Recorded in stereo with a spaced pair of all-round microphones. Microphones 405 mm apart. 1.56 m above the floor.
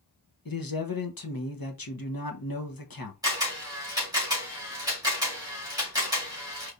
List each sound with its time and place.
0.5 s a man speaking: 55° left (ahead or behind), 1.0 m
3.2 s a camera shutter: 10° right (ahead or behind), 2.5 m